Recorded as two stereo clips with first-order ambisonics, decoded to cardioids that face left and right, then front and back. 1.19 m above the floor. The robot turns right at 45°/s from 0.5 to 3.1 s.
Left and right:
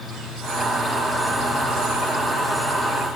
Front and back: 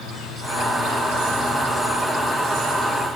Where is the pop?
I don't hear a pop.